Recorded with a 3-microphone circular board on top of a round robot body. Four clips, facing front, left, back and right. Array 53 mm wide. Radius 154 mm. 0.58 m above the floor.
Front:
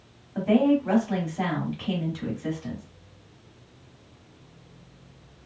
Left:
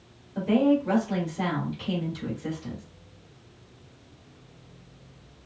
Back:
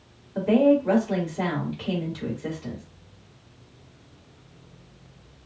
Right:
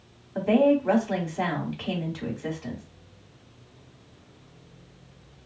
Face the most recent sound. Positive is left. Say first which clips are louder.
# right 2 dB, back 2 dB
turn(degrees=-85)